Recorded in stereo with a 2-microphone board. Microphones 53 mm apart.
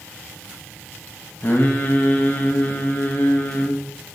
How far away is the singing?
About 1.1 m.